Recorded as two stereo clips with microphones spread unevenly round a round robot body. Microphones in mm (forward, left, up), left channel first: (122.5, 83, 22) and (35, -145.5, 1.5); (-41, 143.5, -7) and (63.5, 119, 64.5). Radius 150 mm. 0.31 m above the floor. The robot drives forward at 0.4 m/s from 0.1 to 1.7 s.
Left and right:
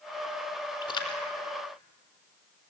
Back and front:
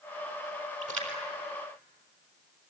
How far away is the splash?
About 4 m.